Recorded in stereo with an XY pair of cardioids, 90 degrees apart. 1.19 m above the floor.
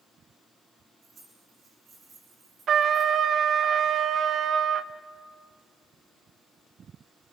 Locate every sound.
1.0 s keys jangling: 60° right, 9 m
2.7 s a trumpet: 60° right, 0.7 m